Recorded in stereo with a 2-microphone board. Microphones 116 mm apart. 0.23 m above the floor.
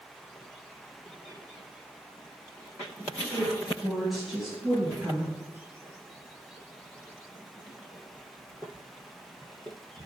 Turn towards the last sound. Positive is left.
turn(degrees=-10)  # may be behind; listen again after turning